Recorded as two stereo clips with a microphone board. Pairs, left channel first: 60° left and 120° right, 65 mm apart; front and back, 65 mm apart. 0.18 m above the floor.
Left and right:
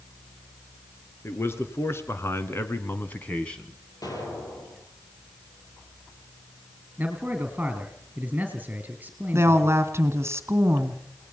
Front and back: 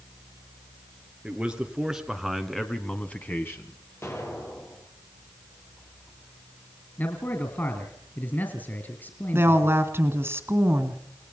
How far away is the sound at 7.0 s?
About 2.5 m.